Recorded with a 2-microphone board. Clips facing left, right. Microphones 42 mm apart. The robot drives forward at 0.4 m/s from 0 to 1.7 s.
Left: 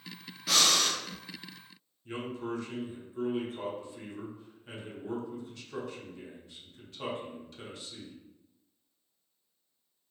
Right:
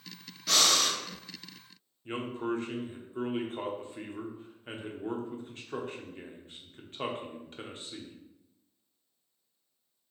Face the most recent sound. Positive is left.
turn(degrees=-35)  # may be behind; listen again after turning